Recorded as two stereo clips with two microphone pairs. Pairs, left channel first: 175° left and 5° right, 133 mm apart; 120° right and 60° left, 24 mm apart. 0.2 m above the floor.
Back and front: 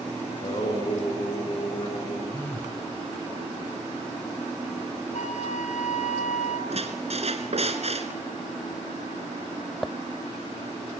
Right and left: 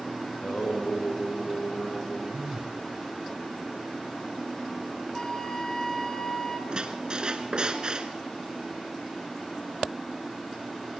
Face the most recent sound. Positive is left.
turn(degrees=15)